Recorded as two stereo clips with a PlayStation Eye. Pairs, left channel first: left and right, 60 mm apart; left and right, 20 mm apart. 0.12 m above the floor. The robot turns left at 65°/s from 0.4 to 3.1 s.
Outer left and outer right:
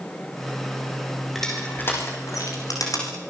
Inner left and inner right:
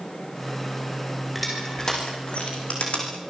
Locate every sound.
1.4 s crushing: 5° left (ahead or behind), 7 m; by 3.1 s 65° left (ahead or behind), 7 m